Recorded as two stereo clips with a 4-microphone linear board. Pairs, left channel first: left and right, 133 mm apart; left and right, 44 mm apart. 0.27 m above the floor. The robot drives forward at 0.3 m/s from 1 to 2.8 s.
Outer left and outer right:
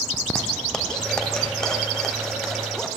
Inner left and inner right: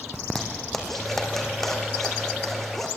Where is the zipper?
5° left (ahead or behind), 3.5 m.